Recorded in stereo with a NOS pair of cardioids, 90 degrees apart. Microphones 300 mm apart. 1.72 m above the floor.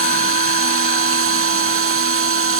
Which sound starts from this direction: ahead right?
A machine running, at 0.0 s.